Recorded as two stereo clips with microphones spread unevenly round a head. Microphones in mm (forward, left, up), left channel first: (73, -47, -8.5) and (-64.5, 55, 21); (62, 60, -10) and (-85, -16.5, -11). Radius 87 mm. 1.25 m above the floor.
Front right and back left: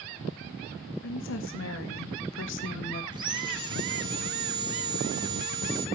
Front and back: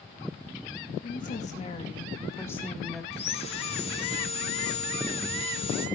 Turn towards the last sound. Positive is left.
turn(degrees=80)